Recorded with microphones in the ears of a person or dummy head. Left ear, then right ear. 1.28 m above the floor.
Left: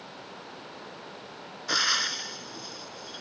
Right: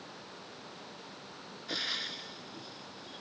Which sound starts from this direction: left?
Frying, at 1.7 s.